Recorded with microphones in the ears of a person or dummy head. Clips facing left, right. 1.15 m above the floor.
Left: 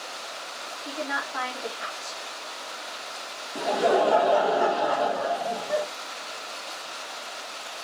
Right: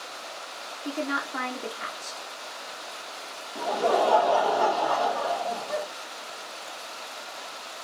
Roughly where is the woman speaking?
Right.